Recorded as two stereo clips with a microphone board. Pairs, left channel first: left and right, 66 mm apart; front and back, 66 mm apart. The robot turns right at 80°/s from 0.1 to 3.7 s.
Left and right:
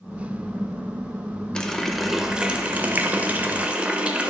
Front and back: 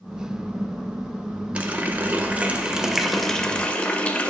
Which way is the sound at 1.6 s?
145° left.